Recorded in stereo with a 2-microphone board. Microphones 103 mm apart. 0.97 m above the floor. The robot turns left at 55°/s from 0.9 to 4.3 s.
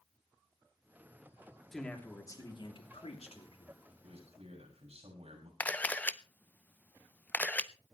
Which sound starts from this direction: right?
A man speaking, at 4.0 s.